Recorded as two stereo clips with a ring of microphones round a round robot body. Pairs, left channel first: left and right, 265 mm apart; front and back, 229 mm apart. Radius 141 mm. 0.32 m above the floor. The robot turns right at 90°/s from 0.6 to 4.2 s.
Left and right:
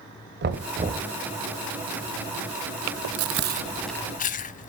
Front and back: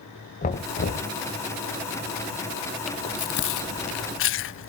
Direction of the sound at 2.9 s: 90° right.